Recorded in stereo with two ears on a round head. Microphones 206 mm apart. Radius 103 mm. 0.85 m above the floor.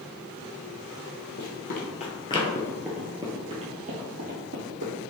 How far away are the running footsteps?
About 1.3 m.